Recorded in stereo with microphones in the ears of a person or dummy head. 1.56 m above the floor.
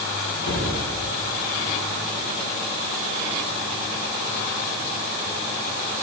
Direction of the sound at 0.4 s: 65° left (ahead or behind).